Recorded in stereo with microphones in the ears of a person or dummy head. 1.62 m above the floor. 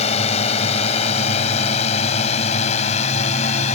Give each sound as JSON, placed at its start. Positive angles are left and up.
{"t": 0.0, "sound": "a drone", "side_deg": 35}